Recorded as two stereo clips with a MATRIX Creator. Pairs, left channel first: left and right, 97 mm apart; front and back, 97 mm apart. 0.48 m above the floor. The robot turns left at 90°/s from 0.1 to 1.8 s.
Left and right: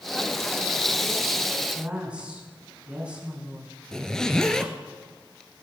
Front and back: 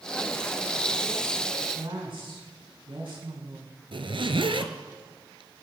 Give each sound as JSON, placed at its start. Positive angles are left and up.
{"t": 1.7, "sound": "a woman speaking", "azimuth_deg": -160, "distance_m": 5.5}
{"t": 3.9, "sound": "a zipper", "azimuth_deg": 175, "distance_m": 1.1}